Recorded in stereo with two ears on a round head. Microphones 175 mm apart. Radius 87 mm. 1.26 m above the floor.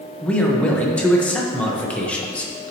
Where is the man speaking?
5° left (ahead or behind), 1.0 m.